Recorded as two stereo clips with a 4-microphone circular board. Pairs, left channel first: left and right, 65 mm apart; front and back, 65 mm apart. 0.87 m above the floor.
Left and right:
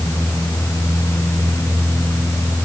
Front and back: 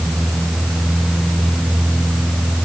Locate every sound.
Only background noise.